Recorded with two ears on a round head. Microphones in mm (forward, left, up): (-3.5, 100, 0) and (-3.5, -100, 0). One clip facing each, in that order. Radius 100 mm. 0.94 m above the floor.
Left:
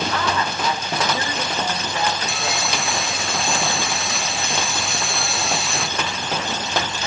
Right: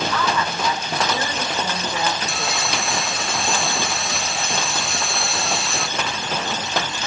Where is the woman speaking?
80° right, 4.5 m.